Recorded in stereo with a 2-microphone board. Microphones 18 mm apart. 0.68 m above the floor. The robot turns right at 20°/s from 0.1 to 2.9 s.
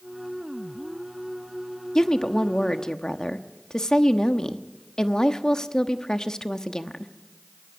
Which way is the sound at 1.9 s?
40° left (ahead or behind).